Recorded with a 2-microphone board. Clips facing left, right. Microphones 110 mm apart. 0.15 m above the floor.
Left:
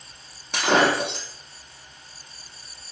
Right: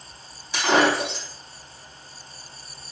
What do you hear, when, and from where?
0.5 s breaking glass: 60° left (ahead or behind), 1.5 m